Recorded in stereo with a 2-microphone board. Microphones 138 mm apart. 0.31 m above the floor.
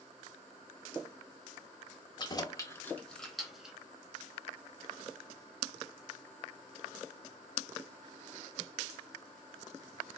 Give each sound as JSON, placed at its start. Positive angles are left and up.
{"t": 2.2, "sound": "keys jangling", "side_deg": 35, "distance_m": 0.7}